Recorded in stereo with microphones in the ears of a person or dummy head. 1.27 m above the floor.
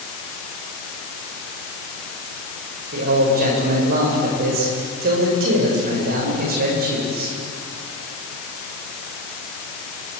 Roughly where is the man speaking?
Right.